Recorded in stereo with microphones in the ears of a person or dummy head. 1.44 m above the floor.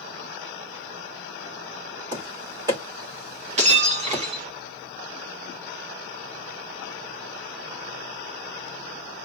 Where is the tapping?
25° right (ahead or behind), 2.5 m.